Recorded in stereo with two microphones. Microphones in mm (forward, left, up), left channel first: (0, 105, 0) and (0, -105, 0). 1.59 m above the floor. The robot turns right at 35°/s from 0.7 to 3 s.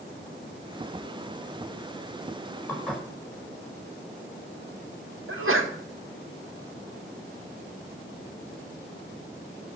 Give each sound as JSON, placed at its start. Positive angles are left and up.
{"t": 2.7, "sound": "dishes clattering", "side_deg": 10, "distance_m": 5.0}
{"t": 5.3, "sound": "a sneeze", "side_deg": -80, "distance_m": 2.0}